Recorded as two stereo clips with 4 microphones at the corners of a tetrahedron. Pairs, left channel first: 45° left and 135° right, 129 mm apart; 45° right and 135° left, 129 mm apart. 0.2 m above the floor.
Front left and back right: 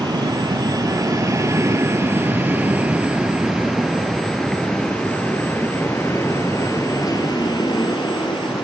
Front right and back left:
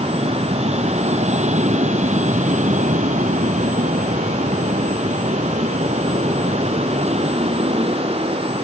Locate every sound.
0.0 s an aircraft: 170° left; by 8.6 s 95° left